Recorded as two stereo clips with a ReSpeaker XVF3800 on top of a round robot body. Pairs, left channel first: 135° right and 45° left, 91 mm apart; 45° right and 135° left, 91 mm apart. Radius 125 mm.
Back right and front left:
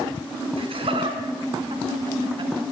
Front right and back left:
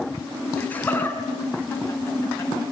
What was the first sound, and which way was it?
Laughter, 30° left.